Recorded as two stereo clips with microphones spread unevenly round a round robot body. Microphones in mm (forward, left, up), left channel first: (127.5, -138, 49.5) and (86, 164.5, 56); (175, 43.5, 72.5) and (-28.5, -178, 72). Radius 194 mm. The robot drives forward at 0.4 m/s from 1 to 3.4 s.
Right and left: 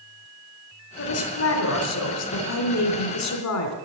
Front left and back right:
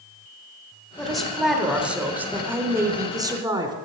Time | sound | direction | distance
1.0 | a woman speaking | 40° right | 3 m